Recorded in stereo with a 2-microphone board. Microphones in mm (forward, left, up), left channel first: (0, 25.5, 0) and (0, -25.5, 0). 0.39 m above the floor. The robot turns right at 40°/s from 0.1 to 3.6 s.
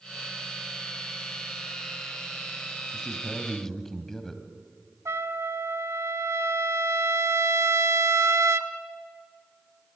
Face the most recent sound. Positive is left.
turn(degrees=-80)